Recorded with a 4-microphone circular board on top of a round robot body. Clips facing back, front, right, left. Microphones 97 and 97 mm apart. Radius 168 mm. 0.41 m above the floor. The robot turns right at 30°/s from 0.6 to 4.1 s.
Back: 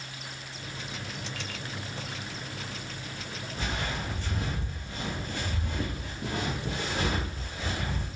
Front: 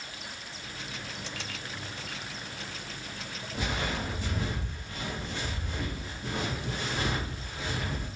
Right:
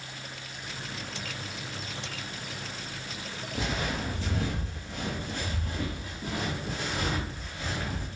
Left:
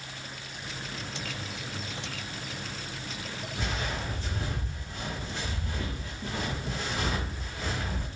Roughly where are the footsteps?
Right.